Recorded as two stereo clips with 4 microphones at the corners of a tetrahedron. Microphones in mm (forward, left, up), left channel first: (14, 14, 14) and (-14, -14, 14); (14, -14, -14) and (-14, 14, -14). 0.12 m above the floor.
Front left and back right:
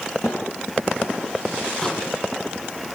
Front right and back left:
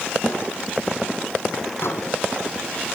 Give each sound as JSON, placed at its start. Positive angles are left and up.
{"t": 0.2, "sound": "a snare drum", "azimuth_deg": 70, "distance_m": 10.0}
{"t": 1.8, "sound": "a microwave", "azimuth_deg": -25, "distance_m": 3.5}